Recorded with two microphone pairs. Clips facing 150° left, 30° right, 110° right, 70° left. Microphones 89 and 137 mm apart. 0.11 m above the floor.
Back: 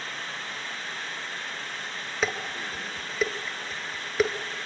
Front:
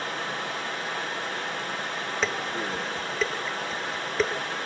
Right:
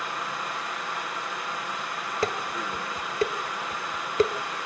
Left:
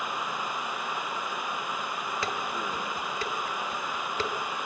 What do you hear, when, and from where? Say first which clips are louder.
0.0 s running water: front 6 dB, even; 10° right, 2.5 m
2.2 s dishes clattering: even, right 6 dB; 130° right, 1.3 m